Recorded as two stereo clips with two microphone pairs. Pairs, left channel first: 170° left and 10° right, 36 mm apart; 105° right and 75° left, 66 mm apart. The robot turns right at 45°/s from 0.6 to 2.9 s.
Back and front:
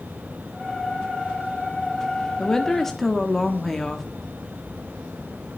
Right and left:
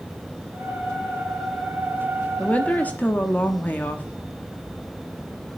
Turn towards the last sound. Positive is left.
turn(degrees=-120)